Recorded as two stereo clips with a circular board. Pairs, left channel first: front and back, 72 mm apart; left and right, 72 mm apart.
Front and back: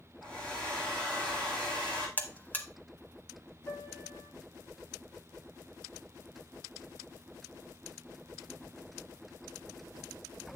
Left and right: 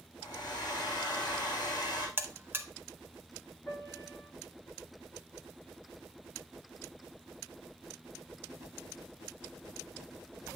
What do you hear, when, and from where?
0.2 s a hair dryer: 75° left, 2.5 m
2.2 s a buzzer: 50° right, 0.9 m
3.7 s a piano: 30° left, 5 m